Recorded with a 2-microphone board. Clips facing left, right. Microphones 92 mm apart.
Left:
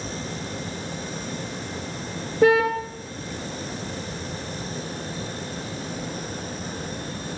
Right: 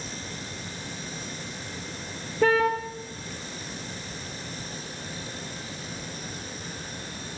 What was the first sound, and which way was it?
A car horn, 15° left (ahead or behind).